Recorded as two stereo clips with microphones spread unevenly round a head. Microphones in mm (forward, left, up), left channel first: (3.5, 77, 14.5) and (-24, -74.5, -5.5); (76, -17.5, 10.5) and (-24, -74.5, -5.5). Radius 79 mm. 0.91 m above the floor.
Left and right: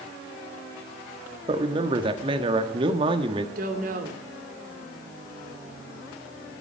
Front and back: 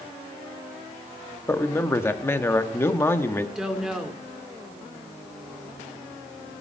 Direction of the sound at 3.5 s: 65° right.